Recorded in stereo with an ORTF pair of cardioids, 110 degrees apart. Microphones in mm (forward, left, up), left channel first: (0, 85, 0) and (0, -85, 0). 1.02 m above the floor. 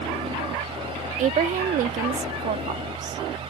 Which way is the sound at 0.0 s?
35° right.